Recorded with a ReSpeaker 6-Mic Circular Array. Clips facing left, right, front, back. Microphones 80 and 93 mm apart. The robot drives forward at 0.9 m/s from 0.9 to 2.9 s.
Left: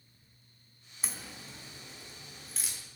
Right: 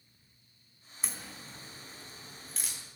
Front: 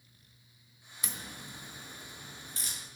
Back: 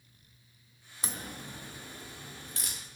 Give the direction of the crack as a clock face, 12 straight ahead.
6 o'clock.